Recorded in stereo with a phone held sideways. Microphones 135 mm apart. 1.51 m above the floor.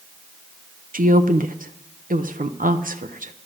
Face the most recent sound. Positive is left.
turn(degrees=-85)